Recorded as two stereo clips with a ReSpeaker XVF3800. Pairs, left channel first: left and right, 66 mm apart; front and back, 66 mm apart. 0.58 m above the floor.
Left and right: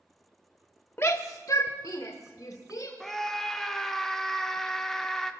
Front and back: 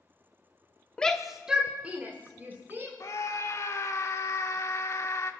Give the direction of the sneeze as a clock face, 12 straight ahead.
No sneeze in this recording.